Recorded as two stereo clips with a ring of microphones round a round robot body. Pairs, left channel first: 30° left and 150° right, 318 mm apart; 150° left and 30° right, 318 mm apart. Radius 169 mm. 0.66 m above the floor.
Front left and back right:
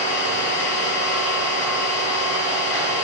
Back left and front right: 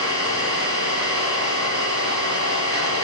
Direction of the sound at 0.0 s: 30° left.